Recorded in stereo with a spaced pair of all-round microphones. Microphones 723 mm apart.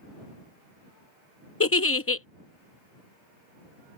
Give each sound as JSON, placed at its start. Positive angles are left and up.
{"t": 1.6, "sound": "a giggle", "side_deg": 20}